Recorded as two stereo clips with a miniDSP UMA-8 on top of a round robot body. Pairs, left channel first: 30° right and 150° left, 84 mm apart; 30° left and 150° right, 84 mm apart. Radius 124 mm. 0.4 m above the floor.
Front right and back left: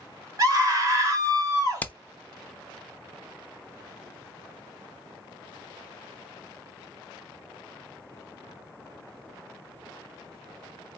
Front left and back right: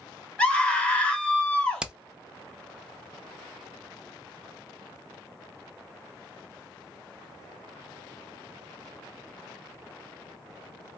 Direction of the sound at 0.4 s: 105° left.